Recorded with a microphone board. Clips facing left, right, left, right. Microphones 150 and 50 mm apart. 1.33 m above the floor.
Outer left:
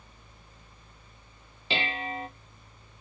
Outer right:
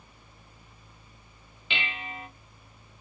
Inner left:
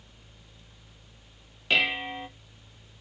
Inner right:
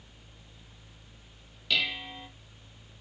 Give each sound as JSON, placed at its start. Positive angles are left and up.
{"t": 1.7, "sound": "dishes clattering", "side_deg": 35, "distance_m": 0.8}